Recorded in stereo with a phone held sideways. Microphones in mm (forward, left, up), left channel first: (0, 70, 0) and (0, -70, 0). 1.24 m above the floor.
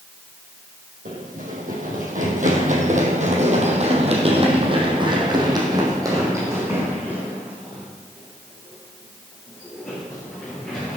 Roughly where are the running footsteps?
Right.